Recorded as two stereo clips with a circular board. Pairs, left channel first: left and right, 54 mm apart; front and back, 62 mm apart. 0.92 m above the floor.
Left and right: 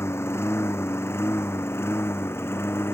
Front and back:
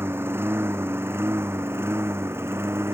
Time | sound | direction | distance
0.0 | a lawn mower | 130° left | ?